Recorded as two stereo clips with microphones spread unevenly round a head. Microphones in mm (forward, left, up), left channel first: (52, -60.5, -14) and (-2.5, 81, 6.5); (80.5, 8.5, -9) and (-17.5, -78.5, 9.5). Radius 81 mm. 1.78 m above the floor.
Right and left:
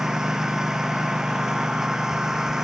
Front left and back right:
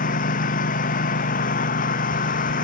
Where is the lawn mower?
25° left.